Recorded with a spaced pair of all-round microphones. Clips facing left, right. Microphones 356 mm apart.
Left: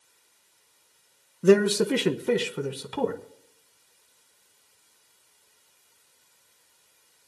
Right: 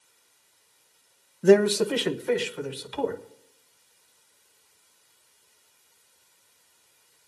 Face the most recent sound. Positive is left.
turn(degrees=65)  # may be behind; listen again after turning